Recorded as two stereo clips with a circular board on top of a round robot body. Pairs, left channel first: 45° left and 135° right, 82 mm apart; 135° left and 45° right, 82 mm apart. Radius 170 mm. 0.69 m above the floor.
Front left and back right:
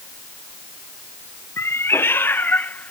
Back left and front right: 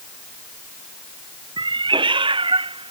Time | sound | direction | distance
1.6 | a cat meowing | 15° right | ?